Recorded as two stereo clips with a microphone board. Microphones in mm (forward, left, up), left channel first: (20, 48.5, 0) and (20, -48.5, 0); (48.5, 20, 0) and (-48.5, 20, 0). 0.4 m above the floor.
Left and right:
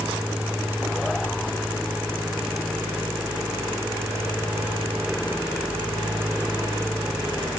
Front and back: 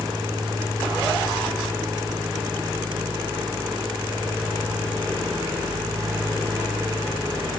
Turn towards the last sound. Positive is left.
No sound to turn to.